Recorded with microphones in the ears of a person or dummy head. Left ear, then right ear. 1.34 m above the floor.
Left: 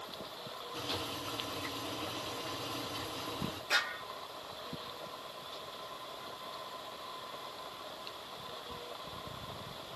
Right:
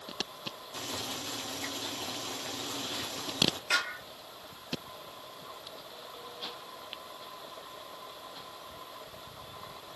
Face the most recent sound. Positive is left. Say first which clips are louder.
# right 2 dB
turn(degrees=-50)  # may be behind; listen again after turning